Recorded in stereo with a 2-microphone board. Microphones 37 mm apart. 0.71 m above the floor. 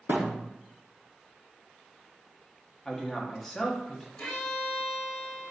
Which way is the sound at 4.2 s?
45° left (ahead or behind).